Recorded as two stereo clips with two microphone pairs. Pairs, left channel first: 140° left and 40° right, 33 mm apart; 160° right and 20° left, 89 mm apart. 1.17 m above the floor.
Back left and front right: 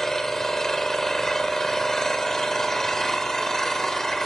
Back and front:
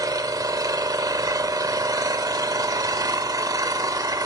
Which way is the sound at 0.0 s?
60° left.